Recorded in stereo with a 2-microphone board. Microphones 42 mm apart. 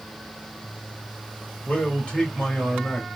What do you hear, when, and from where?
1.6 s a man speaking: 30° left (ahead or behind), 1.4 m